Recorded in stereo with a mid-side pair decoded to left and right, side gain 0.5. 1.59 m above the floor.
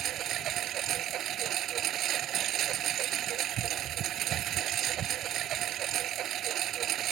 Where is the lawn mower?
65° right.